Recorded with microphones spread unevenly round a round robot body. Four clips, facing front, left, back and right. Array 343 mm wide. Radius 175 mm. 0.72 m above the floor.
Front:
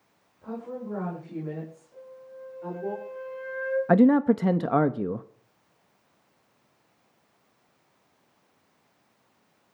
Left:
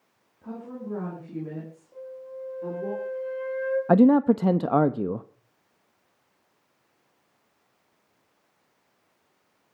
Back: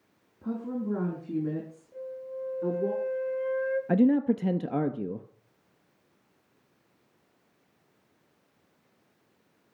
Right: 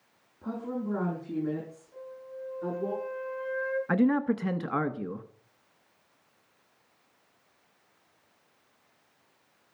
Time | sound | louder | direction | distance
0.4 | a woman speaking | right 3 dB, back 3 dB | 165° right | 8 m
1.9 | a flute | left 5 dB, back 7 dB | 145° left | 6 m
3.9 | a man speaking | left 9 dB, front 5 dB | 70° left | 0.6 m